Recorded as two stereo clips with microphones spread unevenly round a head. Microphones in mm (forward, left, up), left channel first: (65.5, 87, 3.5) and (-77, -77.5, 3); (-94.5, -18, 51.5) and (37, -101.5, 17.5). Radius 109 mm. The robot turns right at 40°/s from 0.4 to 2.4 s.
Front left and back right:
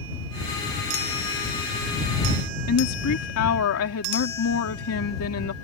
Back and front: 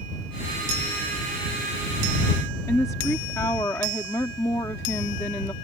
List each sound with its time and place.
2.7 s a woman speaking: 70° left